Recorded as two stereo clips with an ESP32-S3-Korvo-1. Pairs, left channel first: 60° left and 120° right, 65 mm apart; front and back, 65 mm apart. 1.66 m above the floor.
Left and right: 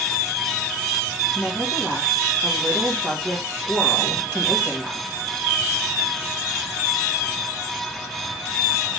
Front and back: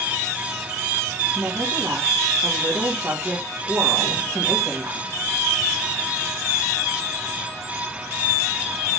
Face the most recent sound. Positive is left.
turn(degrees=155)